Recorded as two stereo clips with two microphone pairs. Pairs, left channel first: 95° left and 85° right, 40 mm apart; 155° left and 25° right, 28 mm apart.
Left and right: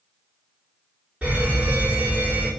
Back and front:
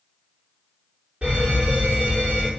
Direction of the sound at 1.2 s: 30° right.